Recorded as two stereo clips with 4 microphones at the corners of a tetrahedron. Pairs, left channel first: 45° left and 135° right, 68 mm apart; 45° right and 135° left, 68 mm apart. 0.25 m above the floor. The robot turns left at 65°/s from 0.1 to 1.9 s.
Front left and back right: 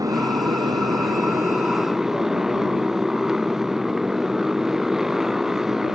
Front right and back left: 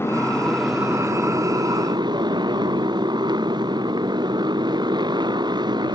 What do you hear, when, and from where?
0.0 s a motorcycle: 100° right; by 6.0 s 140° left